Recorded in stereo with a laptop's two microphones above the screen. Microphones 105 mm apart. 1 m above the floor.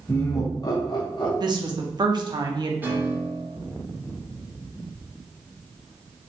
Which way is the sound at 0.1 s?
20° left (ahead or behind).